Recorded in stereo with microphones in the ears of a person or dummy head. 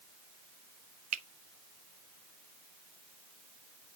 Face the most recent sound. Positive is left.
turn(degrees=-40)  # may be behind; listen again after turning